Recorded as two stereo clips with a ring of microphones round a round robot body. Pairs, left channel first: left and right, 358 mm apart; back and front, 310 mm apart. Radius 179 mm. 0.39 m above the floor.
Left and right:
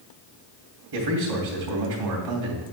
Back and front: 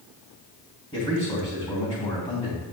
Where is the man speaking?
105° right, 2.5 m.